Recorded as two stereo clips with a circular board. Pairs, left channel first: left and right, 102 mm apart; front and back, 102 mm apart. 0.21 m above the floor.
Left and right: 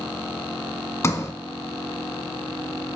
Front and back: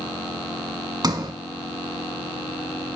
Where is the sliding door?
145° left, 1.2 m.